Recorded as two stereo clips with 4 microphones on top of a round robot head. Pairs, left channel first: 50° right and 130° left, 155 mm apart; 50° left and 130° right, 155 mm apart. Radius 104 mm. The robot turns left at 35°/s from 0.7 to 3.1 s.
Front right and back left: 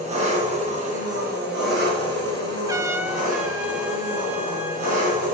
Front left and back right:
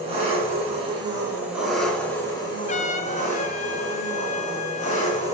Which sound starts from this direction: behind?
An engine running, at 0.0 s.